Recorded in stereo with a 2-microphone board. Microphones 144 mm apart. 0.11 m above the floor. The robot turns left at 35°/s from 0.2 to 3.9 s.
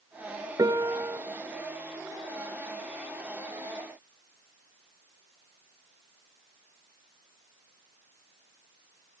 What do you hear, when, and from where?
0.6 s a piano: 25° right (ahead or behind), 0.8 m; by 1.2 s 15° right (ahead or behind), 0.8 m